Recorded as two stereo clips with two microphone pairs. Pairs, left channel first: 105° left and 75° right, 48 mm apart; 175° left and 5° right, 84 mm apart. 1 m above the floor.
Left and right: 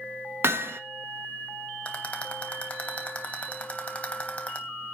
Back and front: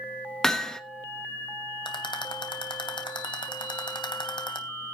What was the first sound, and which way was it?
Hammering, 100° right.